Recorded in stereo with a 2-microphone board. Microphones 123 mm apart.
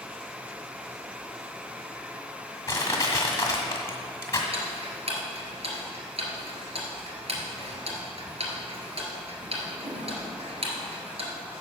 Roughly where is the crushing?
Left.